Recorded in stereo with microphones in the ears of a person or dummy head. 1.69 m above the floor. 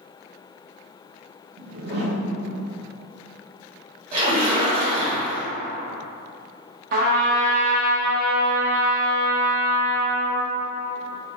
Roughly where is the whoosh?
Right.